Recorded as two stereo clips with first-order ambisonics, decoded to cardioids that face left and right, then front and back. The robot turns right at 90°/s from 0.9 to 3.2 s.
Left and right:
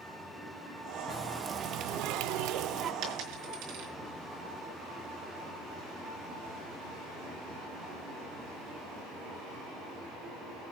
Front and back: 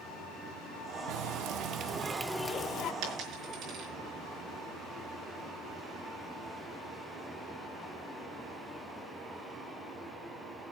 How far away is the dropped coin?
About 5 m.